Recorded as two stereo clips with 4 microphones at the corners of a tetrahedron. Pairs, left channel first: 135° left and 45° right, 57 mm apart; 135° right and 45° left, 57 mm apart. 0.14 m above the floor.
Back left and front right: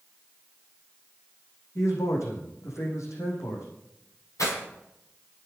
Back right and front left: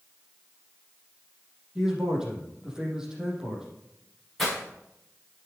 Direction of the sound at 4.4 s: 145° left.